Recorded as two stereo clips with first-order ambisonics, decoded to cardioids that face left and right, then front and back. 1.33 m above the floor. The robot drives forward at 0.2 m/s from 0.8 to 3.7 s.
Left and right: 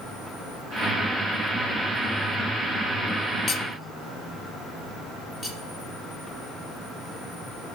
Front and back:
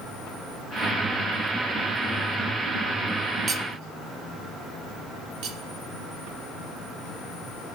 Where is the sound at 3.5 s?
140° left, 0.6 m; by 3.6 s 145° left, 0.6 m.